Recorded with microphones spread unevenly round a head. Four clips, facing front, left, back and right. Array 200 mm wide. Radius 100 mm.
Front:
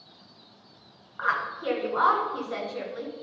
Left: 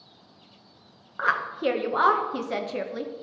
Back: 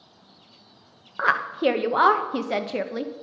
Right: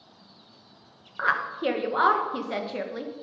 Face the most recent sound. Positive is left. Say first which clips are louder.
# left 1 dB, back 6 dB
turn(degrees=175)